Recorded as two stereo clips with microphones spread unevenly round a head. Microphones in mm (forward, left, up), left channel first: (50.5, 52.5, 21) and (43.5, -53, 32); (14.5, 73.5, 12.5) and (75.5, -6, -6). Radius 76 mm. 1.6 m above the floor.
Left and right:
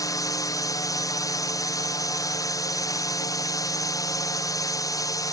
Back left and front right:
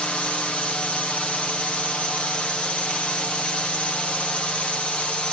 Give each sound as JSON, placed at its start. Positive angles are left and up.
{"t": 0.0, "sound": "a drone", "azimuth_deg": 45}